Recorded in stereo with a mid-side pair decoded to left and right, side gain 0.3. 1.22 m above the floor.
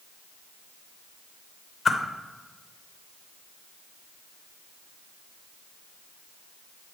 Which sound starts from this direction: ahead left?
A whoosh, at 1.9 s.